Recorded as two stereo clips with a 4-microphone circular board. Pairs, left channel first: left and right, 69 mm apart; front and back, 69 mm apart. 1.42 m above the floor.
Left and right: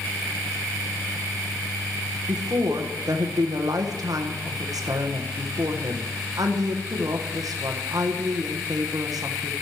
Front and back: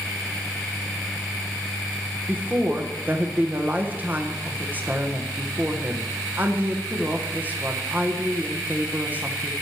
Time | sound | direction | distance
2.3 | a woman speaking | 115° right | 1.3 m